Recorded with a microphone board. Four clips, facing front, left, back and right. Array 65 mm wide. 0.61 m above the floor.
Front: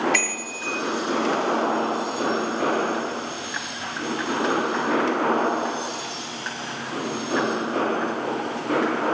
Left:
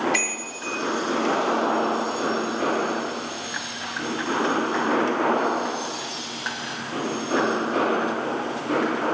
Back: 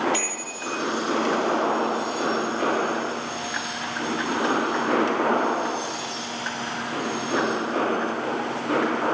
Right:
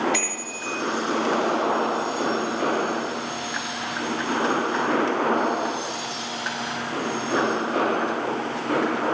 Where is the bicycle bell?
5° left, 7.5 m.